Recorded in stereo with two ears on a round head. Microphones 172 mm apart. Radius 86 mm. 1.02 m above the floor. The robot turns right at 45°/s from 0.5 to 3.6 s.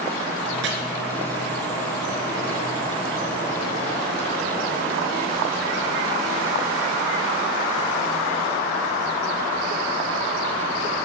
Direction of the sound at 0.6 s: 60° right (ahead or behind).